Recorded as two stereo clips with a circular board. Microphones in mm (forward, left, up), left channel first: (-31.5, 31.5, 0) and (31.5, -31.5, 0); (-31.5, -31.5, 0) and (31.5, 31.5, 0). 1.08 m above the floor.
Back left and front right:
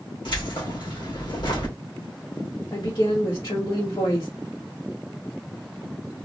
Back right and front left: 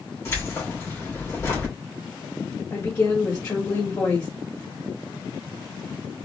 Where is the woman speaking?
160° left, 1.6 m.